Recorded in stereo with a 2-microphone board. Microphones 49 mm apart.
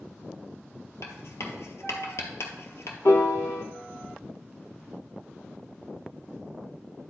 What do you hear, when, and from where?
1.0 s writing: 70° left (ahead or behind), 1.3 m
3.0 s a piano: 80° left, 0.8 m